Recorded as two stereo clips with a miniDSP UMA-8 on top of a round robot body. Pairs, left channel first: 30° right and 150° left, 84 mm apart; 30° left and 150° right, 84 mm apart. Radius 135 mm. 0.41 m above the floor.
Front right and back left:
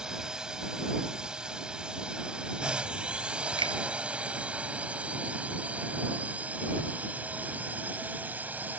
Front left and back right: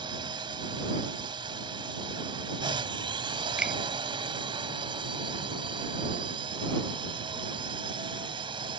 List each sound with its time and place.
0.0 s a drone: 130° right; by 8.8 s 140° right
3.6 s a finger snap: 130° left